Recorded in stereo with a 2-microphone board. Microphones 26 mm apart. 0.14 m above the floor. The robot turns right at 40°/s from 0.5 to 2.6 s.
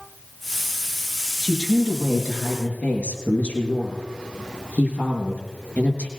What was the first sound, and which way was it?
A woman speaking, 20° left.